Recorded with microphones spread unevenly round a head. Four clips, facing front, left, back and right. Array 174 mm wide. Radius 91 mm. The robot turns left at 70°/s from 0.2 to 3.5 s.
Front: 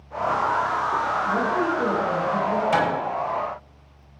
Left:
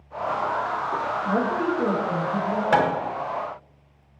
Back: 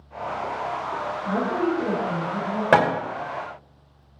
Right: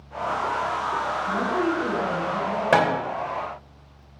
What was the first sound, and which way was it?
A woman speaking, 100° left.